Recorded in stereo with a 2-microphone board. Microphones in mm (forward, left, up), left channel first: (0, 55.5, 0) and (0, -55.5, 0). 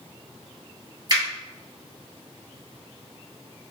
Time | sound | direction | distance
1.1 | a finger snap | 40° right (ahead or behind) | 1.5 m